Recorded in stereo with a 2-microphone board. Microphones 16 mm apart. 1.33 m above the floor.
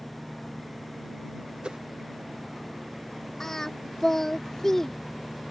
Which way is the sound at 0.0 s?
35° right (ahead or behind).